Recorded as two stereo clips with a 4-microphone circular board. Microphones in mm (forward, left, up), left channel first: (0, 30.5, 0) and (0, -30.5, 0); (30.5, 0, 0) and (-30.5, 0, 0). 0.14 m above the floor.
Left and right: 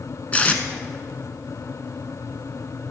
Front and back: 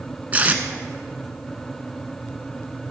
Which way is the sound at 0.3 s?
140° left.